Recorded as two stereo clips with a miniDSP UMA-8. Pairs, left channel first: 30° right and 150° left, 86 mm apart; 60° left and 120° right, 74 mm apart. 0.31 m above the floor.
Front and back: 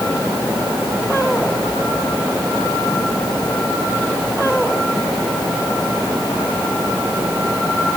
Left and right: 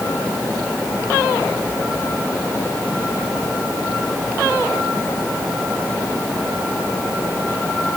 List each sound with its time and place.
Only background noise.